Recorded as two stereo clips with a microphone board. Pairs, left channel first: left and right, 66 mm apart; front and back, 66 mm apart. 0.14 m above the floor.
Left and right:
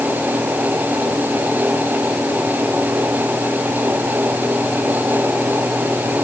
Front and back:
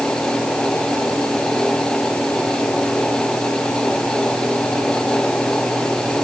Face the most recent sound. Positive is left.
No sound to turn to.